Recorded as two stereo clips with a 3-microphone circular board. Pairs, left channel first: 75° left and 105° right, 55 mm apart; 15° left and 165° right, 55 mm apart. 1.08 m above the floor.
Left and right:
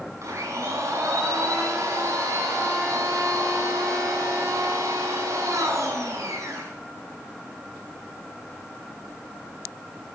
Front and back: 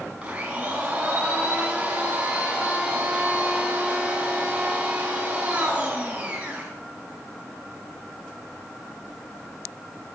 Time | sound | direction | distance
0.2 | a blender | 100° right | 4.5 m